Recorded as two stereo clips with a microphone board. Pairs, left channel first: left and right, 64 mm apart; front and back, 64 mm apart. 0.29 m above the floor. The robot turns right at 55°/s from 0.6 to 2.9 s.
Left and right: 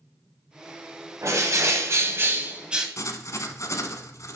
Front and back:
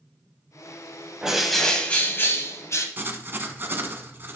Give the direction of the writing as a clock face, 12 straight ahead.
8 o'clock.